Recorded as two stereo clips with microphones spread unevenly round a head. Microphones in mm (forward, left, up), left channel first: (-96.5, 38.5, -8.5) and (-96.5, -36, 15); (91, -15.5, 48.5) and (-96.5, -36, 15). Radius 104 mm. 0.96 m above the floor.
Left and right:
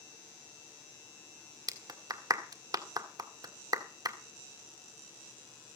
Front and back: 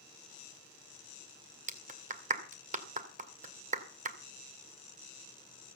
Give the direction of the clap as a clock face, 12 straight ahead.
4 o'clock.